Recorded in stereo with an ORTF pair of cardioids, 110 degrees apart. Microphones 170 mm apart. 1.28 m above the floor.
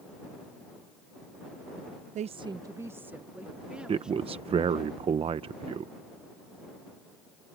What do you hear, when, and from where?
2.1 s a woman speaking: 50° right; by 4.9 s 5° right
3.9 s a man speaking: 35° right